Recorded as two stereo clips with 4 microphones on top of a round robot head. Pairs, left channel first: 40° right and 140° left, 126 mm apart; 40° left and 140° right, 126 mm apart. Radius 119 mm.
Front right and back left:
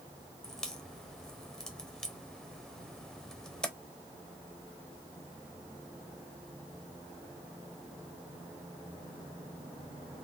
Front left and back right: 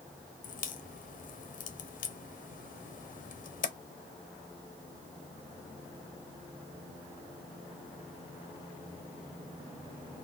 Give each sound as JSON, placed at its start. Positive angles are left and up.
{"t": 0.4, "sound": "a crack", "azimuth_deg": 45, "distance_m": 0.6}